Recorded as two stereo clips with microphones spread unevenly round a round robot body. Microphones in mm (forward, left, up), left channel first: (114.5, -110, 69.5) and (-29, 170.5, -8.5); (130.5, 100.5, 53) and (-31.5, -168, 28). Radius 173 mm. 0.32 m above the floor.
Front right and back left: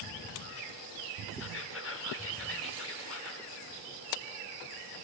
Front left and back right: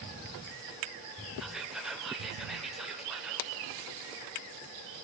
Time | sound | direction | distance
1.4 | whispering | 45° right | 1.0 m